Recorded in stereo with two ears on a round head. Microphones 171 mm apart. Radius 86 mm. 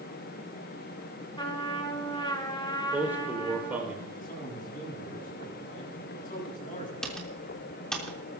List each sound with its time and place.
1.4 s a trumpet: 25° left (ahead or behind), 2 m
2.8 s a man speaking: 10° right (ahead or behind), 4.5 m
4.1 s a man speaking: 45° left (ahead or behind), 9 m
7.0 s typing on a keyboard: 5° left (ahead or behind), 3.5 m